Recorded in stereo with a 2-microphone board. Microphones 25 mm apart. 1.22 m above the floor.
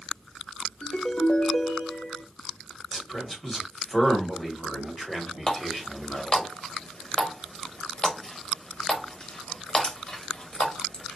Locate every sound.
0.8 s a ringtone: 35° left (ahead or behind), 0.9 m
2.9 s a man speaking: 5° left (ahead or behind), 1.4 m
5.5 s a running tap: 30° left (ahead or behind), 0.8 m